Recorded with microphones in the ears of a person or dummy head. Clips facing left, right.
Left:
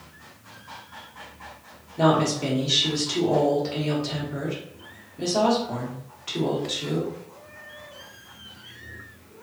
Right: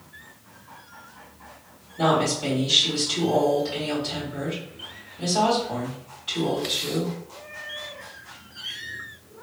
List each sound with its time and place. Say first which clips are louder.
2.0 s a woman speaking: left 2 dB; 70° left (ahead or behind), 1.5 m